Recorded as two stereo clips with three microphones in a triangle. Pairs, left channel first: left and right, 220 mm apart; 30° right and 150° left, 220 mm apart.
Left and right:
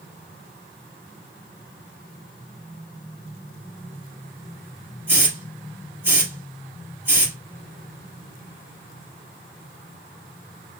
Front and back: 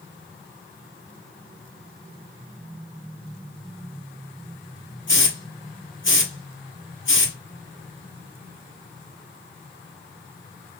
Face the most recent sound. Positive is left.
turn(degrees=-10)